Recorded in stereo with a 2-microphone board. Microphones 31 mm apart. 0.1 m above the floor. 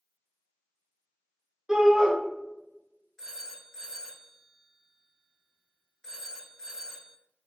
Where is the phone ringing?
20° left (ahead or behind), 0.7 m.